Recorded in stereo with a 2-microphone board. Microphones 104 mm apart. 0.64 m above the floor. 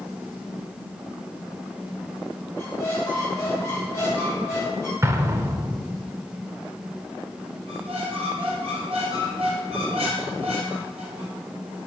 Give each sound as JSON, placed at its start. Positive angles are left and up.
{"t": 2.5, "sound": "a squeak", "side_deg": 30, "distance_m": 1.7}
{"t": 5.0, "sound": "an explosion", "side_deg": -25, "distance_m": 0.5}
{"t": 7.7, "sound": "a squeak", "side_deg": -60, "distance_m": 3.0}